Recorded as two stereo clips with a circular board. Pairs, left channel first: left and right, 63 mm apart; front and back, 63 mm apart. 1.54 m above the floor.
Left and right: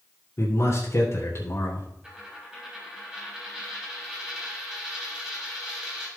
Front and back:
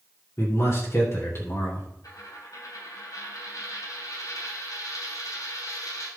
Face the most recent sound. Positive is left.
turn(degrees=-10)